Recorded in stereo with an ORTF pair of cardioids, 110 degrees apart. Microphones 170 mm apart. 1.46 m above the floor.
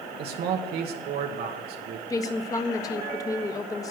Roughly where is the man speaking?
Ahead right.